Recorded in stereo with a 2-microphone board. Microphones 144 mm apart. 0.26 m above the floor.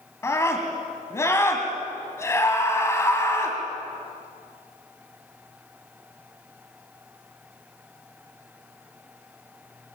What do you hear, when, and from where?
0.2 s a scream: 20° left (ahead or behind), 2.5 m